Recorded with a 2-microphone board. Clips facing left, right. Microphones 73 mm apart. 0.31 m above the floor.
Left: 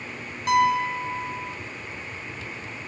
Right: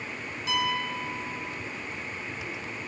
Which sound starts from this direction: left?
A piano, at 0.5 s.